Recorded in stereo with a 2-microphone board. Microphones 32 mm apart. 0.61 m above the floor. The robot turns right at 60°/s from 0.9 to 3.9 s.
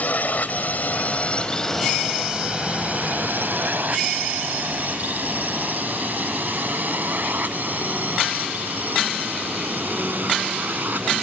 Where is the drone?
55° left (ahead or behind); by 11.2 s 65° right (ahead or behind).